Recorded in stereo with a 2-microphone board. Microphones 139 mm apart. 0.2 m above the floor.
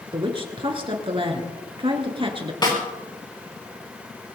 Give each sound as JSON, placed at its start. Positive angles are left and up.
{"t": 0.1, "sound": "a woman speaking", "side_deg": -40, "distance_m": 2.5}
{"t": 2.6, "sound": "a snare drum", "side_deg": 30, "distance_m": 4.0}